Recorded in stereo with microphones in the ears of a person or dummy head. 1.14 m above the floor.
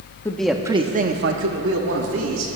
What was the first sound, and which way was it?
A man speaking, 10° left (ahead or behind).